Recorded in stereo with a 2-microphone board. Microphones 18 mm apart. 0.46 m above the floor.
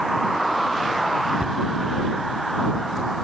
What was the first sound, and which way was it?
A cupboard door, 60° right (ahead or behind).